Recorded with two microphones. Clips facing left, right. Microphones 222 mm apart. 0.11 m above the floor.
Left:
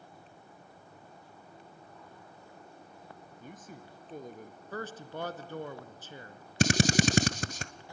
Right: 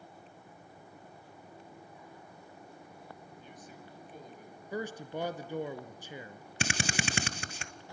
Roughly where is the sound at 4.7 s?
Centre.